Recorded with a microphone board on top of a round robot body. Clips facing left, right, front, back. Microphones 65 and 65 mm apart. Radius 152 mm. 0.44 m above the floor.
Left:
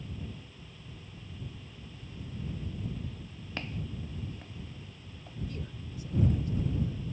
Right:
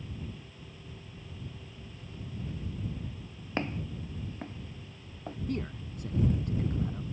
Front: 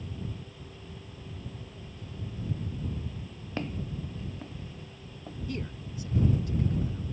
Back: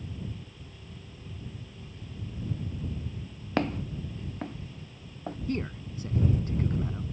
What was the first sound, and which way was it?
Footsteps, 155° right.